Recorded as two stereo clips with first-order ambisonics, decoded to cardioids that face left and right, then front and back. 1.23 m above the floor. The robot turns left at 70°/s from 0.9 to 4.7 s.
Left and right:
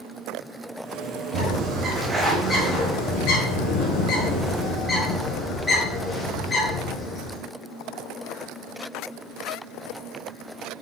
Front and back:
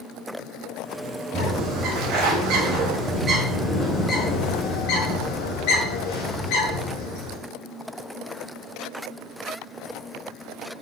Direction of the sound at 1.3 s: 110° right.